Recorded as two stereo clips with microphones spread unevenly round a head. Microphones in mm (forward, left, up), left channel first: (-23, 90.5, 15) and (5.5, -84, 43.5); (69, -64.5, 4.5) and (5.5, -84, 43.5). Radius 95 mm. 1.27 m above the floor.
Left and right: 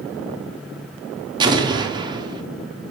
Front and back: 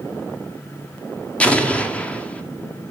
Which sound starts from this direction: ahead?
An explosion, at 1.4 s.